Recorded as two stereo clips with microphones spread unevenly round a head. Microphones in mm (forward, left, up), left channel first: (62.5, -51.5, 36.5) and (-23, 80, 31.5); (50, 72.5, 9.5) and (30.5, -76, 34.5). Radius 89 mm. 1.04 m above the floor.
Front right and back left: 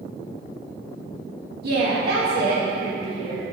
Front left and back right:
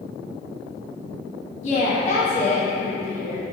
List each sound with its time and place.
1.6 s a woman speaking: 120° left, 1.8 m